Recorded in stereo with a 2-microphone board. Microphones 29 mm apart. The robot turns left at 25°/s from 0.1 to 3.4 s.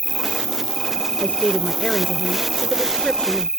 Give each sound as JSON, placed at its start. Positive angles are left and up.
{"t": 0.0, "sound": "an insect", "azimuth_deg": 55}
{"t": 1.2, "sound": "a woman speaking", "azimuth_deg": 90}